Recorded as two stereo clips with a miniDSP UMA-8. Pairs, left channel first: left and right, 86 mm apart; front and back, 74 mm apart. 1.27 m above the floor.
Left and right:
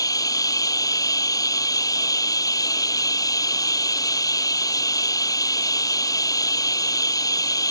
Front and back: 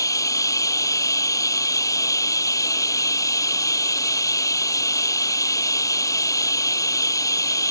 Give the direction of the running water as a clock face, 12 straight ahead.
11 o'clock.